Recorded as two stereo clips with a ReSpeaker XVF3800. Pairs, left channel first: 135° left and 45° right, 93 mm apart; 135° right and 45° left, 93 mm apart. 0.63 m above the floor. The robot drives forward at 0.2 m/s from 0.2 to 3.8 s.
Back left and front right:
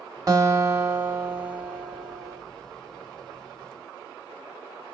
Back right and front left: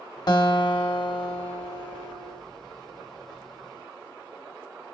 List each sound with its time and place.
0.3 s a guitar: 95° right, 0.7 m; by 2.4 s 125° right, 0.8 m